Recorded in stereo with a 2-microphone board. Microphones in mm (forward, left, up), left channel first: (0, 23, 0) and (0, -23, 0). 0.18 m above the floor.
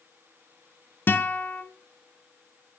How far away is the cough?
I don't hear a cough.